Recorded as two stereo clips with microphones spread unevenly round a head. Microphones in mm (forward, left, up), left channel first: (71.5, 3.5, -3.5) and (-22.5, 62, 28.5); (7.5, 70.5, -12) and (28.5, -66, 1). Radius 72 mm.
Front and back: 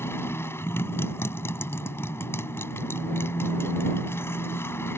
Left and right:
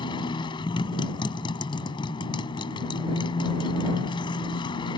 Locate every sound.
0.0 s a motorcycle: 40° left